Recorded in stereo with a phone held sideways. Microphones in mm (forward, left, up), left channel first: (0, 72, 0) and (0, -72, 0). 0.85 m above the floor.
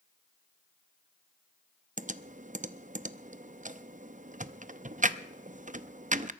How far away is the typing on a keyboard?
About 0.6 m.